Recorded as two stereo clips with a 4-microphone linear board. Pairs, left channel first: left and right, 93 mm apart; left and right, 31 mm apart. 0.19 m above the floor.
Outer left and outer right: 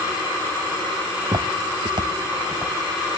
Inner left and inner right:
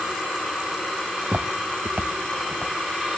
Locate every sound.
1.2 s footsteps: 65° right (ahead or behind), 1.3 m; by 2.7 s 40° right (ahead or behind), 2.5 m